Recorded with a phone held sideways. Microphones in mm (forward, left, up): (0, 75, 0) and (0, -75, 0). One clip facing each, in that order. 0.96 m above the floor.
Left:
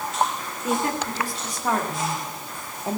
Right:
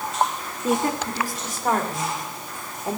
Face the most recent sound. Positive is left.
turn(degrees=30)  # may be behind; listen again after turning